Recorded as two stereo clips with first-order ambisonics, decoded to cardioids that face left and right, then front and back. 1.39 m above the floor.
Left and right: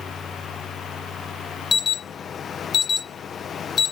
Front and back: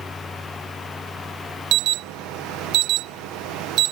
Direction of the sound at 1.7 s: 155° left.